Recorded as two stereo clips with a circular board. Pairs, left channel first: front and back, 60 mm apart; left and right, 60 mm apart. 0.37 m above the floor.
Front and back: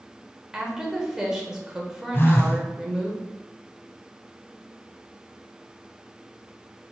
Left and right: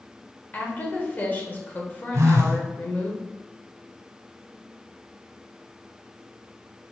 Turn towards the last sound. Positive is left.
turn(degrees=-55)